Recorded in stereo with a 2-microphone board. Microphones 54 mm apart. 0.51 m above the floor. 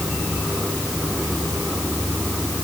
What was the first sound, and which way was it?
Only background noise.